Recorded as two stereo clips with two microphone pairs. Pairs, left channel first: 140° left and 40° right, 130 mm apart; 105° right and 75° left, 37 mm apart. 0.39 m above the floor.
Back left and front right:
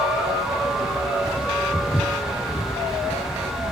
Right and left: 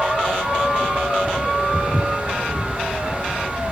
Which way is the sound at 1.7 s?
60° left.